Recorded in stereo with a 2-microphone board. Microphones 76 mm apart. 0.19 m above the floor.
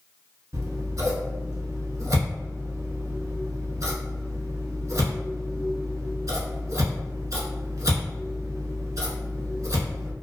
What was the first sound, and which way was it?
Scissors, 55° right (ahead or behind).